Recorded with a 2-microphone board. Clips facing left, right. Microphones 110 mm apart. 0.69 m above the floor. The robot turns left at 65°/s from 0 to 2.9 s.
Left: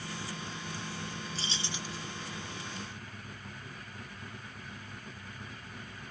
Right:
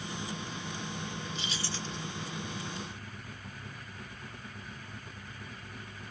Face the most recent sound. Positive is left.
turn(degrees=-55)